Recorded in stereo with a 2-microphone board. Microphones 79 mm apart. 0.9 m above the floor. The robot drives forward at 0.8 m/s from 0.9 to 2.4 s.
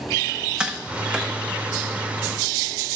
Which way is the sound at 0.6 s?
15° right (ahead or behind).